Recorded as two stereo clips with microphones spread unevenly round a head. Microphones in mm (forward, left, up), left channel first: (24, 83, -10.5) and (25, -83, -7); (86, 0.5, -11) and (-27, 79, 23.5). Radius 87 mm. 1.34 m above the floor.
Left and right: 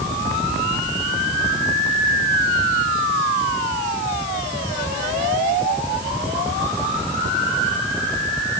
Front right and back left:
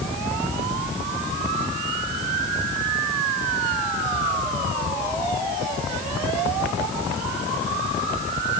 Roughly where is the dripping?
I don't hear dripping.